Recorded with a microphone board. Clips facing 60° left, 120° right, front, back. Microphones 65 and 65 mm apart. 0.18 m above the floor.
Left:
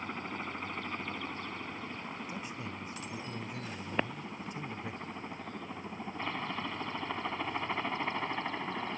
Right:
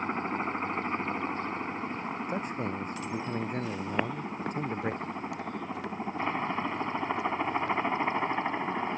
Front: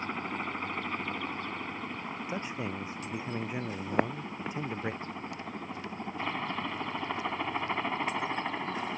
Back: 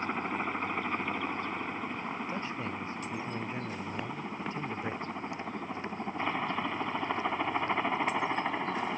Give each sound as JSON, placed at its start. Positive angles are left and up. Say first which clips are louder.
{"t": 0.0, "sound": "a helicopter", "louder": "right 8 dB, back 2 dB", "azimuth_deg": -110}
{"t": 2.3, "sound": "a man speaking", "louder": "right 8 dB, even", "azimuth_deg": -75}
{"t": 3.9, "sound": "footsteps", "louder": "right 2 dB, front 6 dB", "azimuth_deg": -30}